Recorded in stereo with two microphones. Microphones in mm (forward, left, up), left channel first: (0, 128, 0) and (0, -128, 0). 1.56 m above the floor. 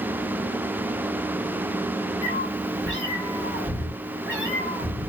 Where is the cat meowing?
50° left (ahead or behind), 1.9 m.